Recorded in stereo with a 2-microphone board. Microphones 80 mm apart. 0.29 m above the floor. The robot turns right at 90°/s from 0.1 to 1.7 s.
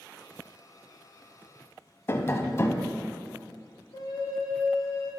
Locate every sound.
2.1 s tapping: 35° left (ahead or behind), 0.5 m
3.9 s a flute: 55° left (ahead or behind), 1.6 m